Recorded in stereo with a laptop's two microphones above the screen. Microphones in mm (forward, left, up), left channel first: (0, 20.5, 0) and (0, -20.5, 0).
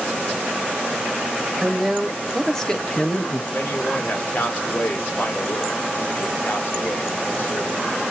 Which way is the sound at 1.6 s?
10° right (ahead or behind).